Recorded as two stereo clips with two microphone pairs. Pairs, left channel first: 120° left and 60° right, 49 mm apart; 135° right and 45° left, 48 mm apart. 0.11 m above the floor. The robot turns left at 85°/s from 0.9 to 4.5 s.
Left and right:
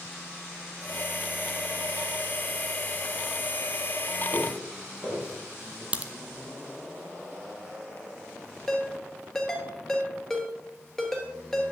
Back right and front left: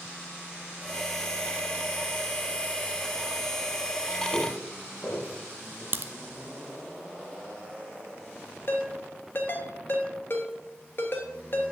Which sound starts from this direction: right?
Footsteps, at 4.3 s.